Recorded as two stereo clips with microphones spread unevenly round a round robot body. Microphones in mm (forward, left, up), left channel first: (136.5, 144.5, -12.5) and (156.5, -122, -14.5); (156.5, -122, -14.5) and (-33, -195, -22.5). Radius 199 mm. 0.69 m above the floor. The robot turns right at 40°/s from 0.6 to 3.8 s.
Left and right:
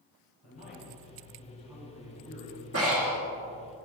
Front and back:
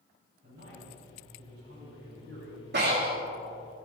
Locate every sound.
0.4 s a man speaking: 145° left, 4.5 m; by 2.6 s 135° right, 4.5 m
2.7 s breathing: 135° right, 2.5 m; by 3.2 s 120° right, 2.5 m